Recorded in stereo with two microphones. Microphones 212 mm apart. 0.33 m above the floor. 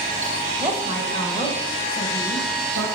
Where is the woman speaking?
15° right (ahead or behind), 1.3 m; by 2.9 s 60° left (ahead or behind), 2 m.